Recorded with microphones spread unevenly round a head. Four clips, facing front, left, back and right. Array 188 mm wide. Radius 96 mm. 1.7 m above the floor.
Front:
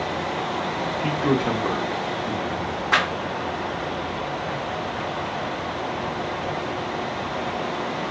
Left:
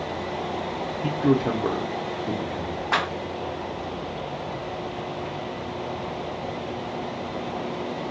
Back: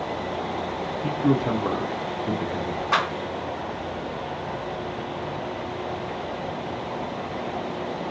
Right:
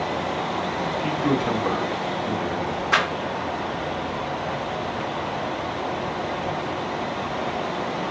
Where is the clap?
110° left, 1.2 m.